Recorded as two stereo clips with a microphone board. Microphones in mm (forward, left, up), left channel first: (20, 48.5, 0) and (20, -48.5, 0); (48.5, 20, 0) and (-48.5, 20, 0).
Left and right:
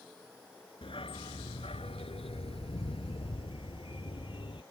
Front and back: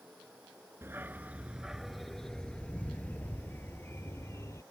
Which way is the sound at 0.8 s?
115° left.